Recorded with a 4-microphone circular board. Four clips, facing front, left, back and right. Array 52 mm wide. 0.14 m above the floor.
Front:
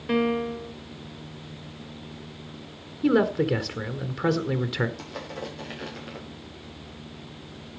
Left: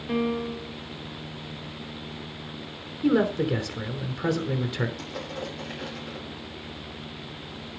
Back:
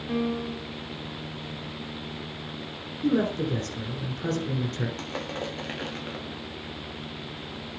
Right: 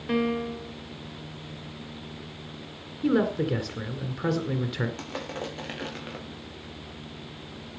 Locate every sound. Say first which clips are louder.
0.1 s a piano: even, front 5 dB; 35° right, 1.4 m
3.0 s a man speaking: left 2 dB, front 4 dB; straight ahead, 1.5 m
5.0 s crushing: even, back 3 dB; 140° right, 5 m